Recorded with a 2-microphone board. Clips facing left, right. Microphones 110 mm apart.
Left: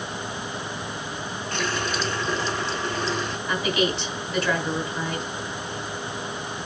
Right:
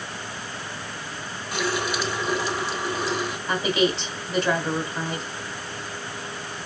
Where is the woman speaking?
30° right (ahead or behind), 2.5 m.